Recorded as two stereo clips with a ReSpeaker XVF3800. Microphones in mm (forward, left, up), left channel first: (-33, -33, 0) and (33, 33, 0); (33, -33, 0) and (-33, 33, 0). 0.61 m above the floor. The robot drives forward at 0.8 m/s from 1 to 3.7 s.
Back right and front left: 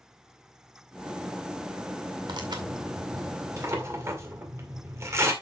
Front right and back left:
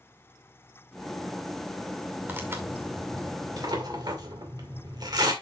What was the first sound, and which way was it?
Tearing paper, 70° left.